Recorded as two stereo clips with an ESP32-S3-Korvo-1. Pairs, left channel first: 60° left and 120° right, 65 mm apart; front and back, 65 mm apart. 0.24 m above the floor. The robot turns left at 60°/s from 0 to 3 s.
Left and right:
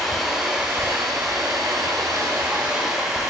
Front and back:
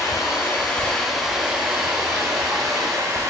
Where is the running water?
20° right, 0.9 m; by 3.3 s 160° left, 0.9 m.